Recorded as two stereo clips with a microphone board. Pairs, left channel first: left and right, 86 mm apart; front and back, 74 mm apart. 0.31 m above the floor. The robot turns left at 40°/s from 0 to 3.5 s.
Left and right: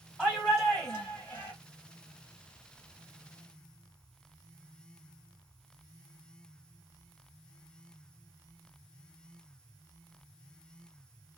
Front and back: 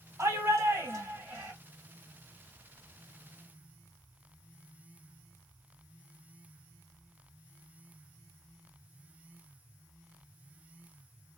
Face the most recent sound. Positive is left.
turn(degrees=35)